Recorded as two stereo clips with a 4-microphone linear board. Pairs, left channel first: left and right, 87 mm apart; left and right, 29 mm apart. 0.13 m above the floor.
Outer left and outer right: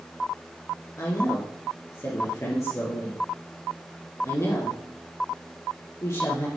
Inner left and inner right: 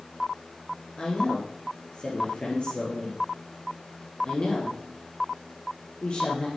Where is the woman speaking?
35° left (ahead or behind), 4 m.